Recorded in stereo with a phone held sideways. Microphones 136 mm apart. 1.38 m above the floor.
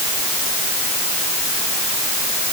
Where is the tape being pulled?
I don't hear tape being pulled.